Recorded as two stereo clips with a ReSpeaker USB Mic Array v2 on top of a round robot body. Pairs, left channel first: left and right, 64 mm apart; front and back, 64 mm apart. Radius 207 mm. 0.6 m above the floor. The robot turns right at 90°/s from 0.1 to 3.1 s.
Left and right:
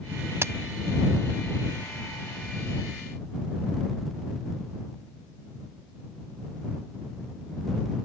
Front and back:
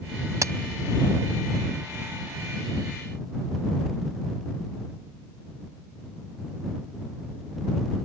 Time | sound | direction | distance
0.4 | a crack | 140° right | ?